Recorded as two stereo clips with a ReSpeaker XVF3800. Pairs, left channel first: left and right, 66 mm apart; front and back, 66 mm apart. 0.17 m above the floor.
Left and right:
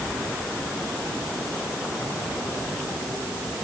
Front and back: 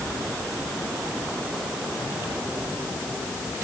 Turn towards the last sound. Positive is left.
No sound to turn to.